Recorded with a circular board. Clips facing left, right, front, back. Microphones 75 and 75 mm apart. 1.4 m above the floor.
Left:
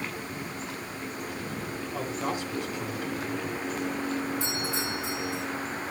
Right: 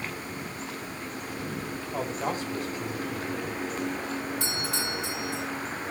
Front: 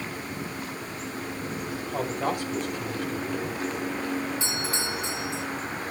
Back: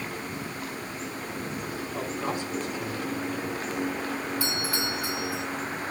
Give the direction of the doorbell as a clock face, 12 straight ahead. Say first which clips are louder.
Even, back 1 dB; 2 o'clock.